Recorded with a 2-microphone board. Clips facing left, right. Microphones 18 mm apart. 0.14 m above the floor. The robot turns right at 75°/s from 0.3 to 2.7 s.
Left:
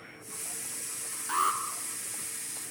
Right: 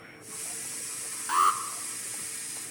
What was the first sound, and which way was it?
An alarm, 40° right (ahead or behind).